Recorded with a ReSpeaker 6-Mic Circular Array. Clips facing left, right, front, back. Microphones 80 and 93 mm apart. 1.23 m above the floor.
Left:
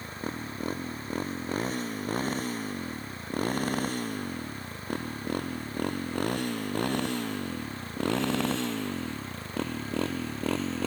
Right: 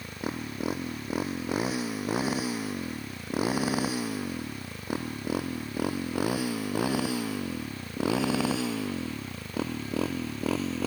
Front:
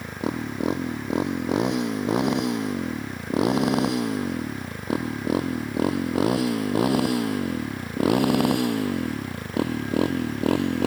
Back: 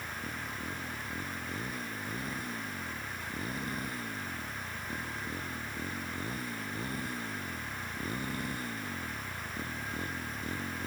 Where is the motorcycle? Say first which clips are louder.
Right 1 dB, front 12 dB; 10° right; by 10.9 s 5° right.